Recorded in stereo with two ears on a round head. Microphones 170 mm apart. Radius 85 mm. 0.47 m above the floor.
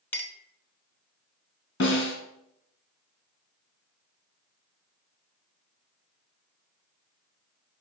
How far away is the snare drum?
About 2.5 m.